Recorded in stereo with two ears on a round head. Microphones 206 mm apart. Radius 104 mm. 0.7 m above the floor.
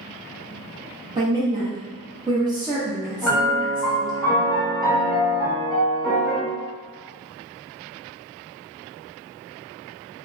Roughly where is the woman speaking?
Centre.